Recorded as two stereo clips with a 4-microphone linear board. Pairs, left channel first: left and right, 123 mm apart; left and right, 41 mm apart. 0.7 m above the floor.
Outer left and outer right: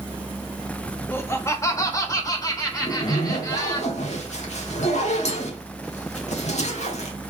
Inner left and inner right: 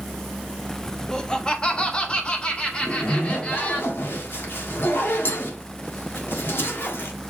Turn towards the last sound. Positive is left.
turn(degrees=65)  # may be behind; listen again after turning